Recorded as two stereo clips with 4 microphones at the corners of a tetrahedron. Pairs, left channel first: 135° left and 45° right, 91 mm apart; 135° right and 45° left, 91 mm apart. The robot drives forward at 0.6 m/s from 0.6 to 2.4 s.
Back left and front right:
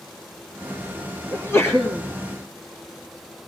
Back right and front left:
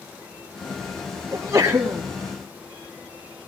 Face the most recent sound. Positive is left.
turn(degrees=105)